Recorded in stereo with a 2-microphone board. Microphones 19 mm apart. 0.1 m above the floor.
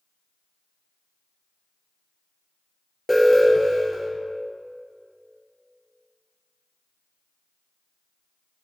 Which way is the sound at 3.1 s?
10° right (ahead or behind).